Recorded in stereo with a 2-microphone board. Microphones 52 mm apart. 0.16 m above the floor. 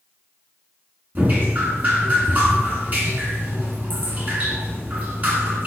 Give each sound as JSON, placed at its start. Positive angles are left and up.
{"t": 1.1, "sound": "dripping", "side_deg": -35, "distance_m": 2.0}